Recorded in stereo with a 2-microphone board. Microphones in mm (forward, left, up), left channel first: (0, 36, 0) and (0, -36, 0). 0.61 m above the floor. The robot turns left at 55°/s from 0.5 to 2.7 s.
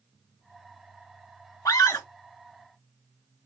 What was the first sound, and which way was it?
A scream, 55° left (ahead or behind).